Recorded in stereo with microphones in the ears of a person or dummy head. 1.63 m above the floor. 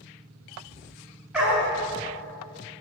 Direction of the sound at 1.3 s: 10° right (ahead or behind).